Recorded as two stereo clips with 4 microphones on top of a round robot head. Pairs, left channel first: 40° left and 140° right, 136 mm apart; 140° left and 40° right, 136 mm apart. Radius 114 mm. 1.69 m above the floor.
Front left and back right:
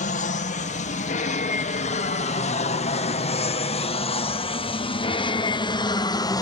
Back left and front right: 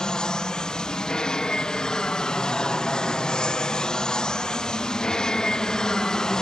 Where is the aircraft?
55° left; by 6.4 s 60° left.